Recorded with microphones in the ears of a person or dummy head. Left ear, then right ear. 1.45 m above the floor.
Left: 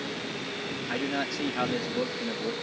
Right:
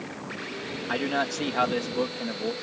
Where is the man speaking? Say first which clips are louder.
Right 4 dB; 40° right (ahead or behind).